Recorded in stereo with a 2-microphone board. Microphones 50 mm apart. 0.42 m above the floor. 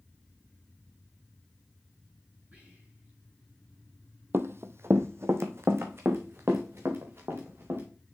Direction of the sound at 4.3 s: 50° right (ahead or behind).